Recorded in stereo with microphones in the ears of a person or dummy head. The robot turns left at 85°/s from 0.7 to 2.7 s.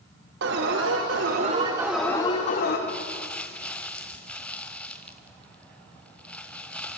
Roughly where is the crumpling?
Centre.